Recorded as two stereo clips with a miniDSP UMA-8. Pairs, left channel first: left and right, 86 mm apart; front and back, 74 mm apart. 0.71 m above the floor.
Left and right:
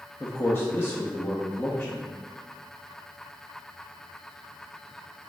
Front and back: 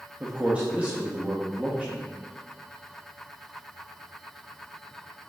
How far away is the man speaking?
About 0.5 m.